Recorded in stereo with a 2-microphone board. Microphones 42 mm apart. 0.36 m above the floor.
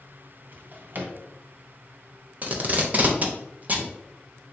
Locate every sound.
0.5 s a drawer: 50° right (ahead or behind), 0.9 m
2.4 s tape being pulled: 40° right (ahead or behind), 0.7 m